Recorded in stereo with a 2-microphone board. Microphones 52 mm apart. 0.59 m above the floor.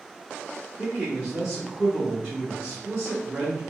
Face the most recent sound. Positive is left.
turn(degrees=-15)  # may be behind; listen again after turning